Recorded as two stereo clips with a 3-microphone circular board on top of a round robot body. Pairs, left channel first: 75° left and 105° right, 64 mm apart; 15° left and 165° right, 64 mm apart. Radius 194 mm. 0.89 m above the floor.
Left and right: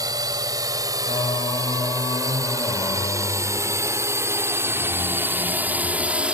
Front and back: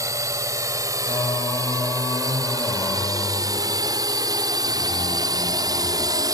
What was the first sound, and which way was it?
A drone, 130° right.